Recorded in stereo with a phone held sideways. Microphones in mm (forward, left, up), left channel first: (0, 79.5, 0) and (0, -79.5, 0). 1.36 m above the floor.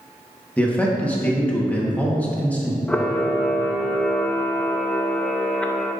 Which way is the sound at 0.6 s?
10° left (ahead or behind).